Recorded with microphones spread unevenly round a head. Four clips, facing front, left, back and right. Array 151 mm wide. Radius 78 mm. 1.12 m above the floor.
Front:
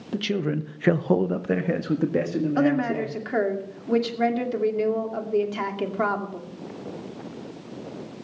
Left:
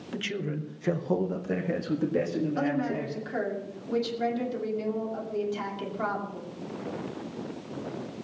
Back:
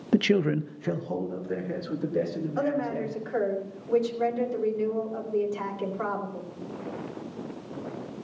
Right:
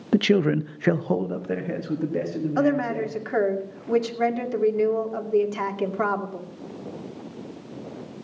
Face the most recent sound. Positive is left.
turn(degrees=-45)